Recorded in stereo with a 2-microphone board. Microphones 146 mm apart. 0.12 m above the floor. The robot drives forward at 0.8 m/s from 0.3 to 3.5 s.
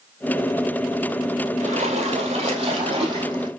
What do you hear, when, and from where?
1.6 s a splash: 50° right (ahead or behind), 2.5 m; by 3.5 s 35° right (ahead or behind), 3.5 m